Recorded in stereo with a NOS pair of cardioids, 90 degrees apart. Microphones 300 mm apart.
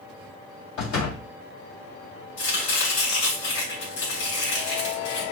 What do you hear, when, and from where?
0.8 s a door slam: 70° left, 2.5 m
2.4 s chopping: 55° left, 3 m